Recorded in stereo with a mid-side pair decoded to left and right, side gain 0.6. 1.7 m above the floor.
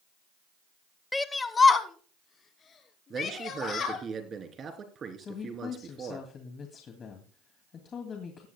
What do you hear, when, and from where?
1.1 s a shout: 10° left, 0.9 m; by 4.0 s 40° left, 5 m
3.1 s a man speaking: 35° right, 3.5 m
5.2 s a woman speaking: 40° left, 2.5 m